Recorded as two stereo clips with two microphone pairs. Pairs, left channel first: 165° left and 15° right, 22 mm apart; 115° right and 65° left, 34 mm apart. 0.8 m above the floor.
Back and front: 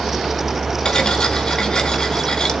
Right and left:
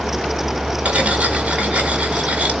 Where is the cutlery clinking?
110° left, 1.7 m.